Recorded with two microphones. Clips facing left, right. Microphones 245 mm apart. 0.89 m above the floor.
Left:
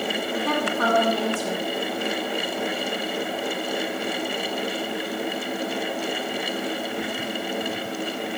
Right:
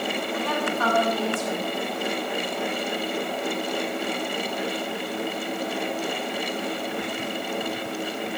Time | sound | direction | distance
0.3 | a woman speaking | 75° left (ahead or behind) | 1.7 m